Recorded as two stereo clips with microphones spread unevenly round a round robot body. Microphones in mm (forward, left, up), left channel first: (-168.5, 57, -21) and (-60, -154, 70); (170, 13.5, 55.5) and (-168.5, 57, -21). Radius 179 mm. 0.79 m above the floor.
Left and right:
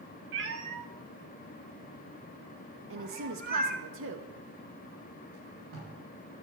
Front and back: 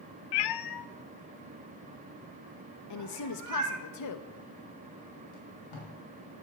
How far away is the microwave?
No microwave in this recording.